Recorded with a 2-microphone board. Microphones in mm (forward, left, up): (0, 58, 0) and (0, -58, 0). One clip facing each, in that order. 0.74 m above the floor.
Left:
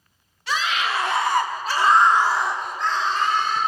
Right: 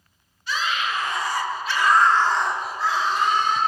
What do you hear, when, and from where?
0.5 s a scream: 70° left (ahead or behind), 1.9 m; by 3.6 s 20° right (ahead or behind), 3 m